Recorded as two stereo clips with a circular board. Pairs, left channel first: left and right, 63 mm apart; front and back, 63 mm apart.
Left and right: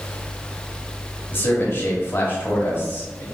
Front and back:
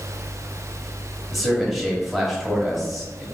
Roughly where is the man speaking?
Left.